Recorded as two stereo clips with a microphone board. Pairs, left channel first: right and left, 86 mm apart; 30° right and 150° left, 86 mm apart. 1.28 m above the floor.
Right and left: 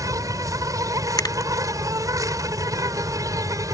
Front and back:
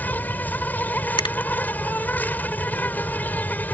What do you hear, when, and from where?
0.0 s an insect: 40° left
1.2 s a finger snap: 50° right